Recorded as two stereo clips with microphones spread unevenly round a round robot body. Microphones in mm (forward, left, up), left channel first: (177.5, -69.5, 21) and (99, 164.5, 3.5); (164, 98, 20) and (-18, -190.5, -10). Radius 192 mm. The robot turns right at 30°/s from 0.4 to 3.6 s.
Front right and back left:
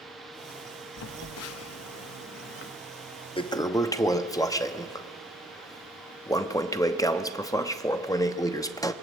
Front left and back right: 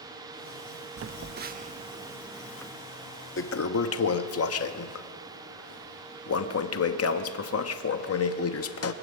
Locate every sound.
1.0 s a phone buzzing: 75° right, 0.7 m; by 2.7 s 25° right, 0.7 m
3.4 s a toilet flushing: straight ahead, 1.0 m; by 8.9 s 5° left, 1.0 m